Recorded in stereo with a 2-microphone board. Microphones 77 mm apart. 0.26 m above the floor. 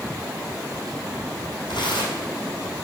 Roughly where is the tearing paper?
Left.